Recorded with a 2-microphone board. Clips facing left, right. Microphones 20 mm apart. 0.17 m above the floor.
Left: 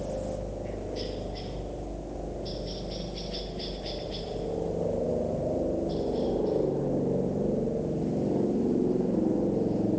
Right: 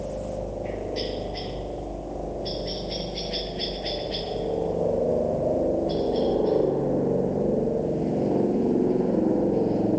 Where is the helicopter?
45° right (ahead or behind); by 10.0 s 55° right (ahead or behind).